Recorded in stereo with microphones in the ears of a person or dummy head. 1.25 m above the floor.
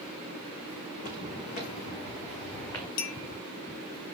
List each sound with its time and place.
0.9 s footsteps: 45° left (ahead or behind), 4.5 m; by 2.9 s 20° left (ahead or behind), 5 m
3.0 s a clink: 60° left (ahead or behind), 1.0 m